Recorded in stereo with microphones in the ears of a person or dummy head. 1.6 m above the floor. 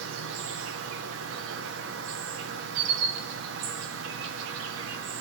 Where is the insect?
75° right (ahead or behind), 1.0 m.